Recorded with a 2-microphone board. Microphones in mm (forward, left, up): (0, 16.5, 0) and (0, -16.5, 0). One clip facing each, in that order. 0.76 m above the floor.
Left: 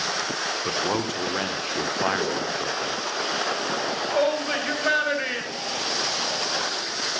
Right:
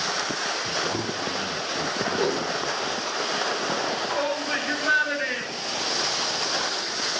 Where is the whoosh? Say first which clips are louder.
Right 1 dB; 20° right (ahead or behind), 3 m.